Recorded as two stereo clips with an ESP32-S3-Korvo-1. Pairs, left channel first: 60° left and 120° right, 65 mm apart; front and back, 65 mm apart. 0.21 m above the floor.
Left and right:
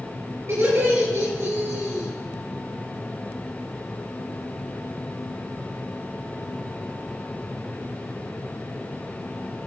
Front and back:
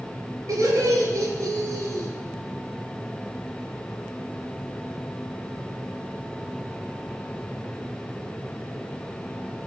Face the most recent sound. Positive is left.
turn(degrees=-165)